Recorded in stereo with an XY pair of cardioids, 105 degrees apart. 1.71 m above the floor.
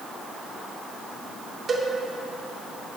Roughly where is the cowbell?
Ahead right.